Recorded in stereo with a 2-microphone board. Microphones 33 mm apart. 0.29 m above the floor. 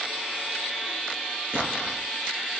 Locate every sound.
1.5 s an explosion: 35° right (ahead or behind), 4 m